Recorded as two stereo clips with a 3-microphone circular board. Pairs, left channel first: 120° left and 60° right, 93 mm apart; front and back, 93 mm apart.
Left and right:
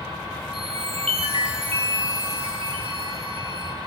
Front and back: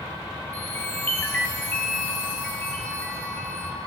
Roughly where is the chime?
Right.